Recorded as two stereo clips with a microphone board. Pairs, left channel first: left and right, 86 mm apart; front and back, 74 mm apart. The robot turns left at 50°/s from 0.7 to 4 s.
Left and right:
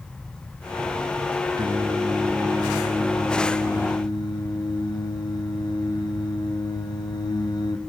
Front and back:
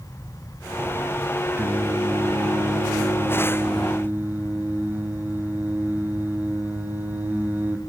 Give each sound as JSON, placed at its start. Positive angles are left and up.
{"t": 1.6, "sound": "singing", "azimuth_deg": -125, "distance_m": 1.1}